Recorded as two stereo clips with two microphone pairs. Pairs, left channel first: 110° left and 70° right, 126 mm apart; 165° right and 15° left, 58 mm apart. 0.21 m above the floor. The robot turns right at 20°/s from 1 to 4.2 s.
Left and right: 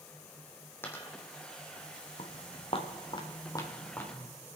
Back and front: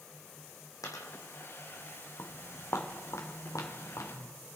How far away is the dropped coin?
About 2 m.